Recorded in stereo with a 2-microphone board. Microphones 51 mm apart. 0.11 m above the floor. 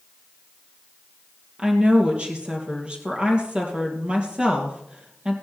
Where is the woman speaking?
20° right (ahead or behind), 2.5 m.